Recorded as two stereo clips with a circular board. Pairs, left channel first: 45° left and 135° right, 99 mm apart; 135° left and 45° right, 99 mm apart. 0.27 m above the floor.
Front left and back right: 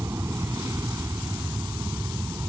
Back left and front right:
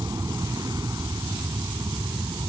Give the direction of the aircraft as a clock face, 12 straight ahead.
3 o'clock.